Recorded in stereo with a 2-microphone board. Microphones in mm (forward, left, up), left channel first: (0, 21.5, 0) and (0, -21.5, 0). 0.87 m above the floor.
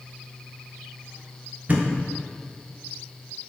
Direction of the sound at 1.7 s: 35° right (ahead or behind).